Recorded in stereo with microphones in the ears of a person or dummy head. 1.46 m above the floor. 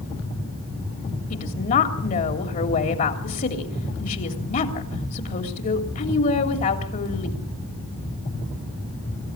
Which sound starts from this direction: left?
A woman speaking, at 1.3 s.